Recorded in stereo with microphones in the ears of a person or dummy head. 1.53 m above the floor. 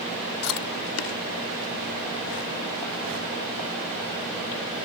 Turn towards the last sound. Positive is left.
turn(degrees=85)